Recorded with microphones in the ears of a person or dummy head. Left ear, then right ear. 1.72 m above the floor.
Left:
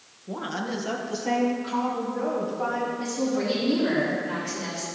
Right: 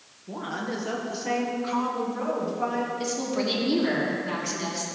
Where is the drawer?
No drawer in this recording.